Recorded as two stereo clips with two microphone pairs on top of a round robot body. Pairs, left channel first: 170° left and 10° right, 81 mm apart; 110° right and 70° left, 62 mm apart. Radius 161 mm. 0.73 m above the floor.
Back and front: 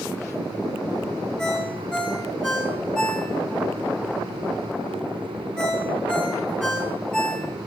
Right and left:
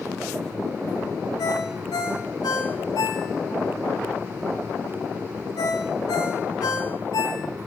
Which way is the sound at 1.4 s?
110° right.